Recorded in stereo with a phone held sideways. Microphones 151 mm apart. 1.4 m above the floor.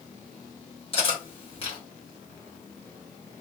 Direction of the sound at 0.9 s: 40° left (ahead or behind).